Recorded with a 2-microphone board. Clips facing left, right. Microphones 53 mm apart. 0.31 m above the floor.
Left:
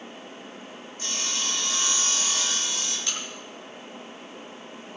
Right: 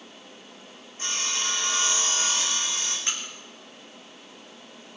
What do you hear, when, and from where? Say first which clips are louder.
1.0 s sawing: right 2 dB; 35° right (ahead or behind), 5.5 m
3.1 s a crack: even; 30° right (ahead or behind), 6 m